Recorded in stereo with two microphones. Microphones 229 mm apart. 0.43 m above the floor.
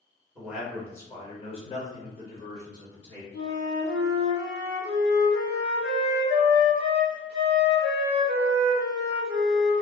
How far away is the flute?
About 1.1 m.